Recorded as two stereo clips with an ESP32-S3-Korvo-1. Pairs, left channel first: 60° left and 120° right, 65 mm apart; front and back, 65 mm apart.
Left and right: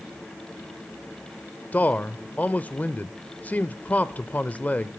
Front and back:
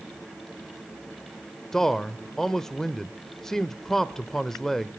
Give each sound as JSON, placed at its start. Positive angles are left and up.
{"t": 1.7, "sound": "a man speaking", "azimuth_deg": 75, "distance_m": 0.8}